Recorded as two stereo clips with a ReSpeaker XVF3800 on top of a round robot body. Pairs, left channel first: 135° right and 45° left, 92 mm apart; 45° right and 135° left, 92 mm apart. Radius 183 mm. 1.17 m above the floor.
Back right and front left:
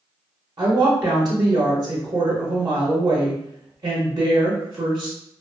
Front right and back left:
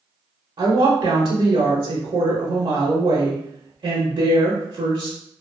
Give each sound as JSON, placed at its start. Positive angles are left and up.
{"t": 0.6, "sound": "a woman speaking", "azimuth_deg": 90, "distance_m": 0.7}